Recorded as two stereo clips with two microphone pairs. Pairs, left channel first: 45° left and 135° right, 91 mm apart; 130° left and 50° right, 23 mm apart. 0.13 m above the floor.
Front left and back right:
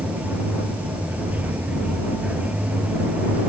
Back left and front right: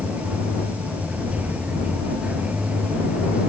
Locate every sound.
0.0 s running water: 60° right